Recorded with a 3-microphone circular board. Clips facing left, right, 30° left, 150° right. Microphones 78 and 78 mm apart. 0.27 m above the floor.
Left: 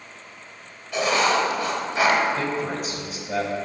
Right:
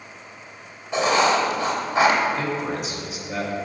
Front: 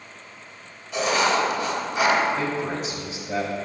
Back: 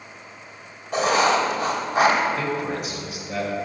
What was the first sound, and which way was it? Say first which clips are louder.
Writing: right 2 dB, back 2 dB; 145° right.